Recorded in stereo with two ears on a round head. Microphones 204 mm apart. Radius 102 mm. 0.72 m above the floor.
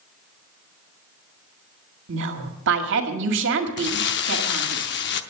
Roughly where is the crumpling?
Left.